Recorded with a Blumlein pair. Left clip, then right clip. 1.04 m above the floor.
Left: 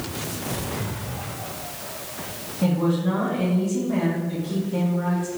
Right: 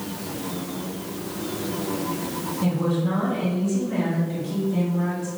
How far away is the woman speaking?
About 1.6 m.